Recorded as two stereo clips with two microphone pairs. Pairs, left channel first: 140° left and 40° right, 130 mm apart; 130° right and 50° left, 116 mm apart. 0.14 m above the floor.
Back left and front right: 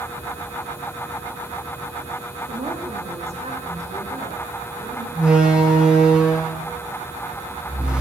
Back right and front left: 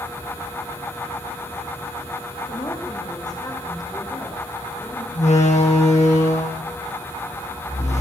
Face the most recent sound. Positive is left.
turn(degrees=-120)